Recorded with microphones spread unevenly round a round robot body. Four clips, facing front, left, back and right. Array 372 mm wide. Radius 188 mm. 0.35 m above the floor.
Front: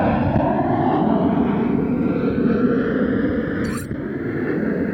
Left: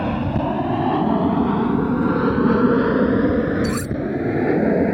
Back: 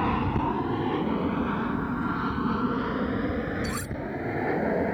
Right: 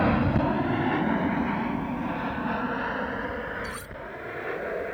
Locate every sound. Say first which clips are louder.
0.0 s an aircraft: left 2 dB, front 8 dB; 5° left; by 4.9 s 60° left
3.6 s cutlery clinking: left 15 dB, front 7 dB; 60° left